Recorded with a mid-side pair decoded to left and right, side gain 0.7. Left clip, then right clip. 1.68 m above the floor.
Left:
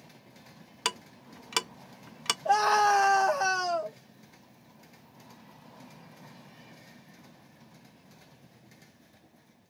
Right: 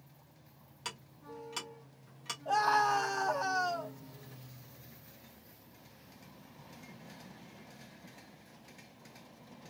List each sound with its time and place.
0.8 s ticking: 55° left, 0.6 m
2.5 s a scream: 65° left, 1.5 m